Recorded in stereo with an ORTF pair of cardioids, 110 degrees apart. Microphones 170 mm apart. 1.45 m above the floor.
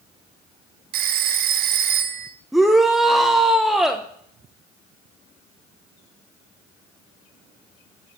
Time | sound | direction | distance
0.9 | a phone ringing | 65° right | 1.0 m
2.5 | a shout | straight ahead | 0.8 m